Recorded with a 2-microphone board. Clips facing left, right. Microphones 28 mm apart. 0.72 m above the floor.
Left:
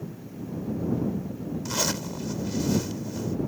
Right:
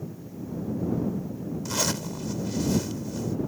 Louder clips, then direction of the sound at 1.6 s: Even; 15° left (ahead or behind).